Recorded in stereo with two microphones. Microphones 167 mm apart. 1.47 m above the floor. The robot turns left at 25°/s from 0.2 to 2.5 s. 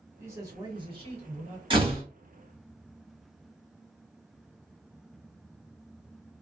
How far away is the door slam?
About 1.2 m.